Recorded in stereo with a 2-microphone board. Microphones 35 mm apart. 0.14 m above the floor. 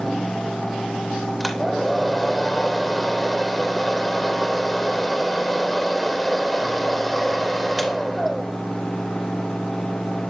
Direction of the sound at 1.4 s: 5° left (ahead or behind).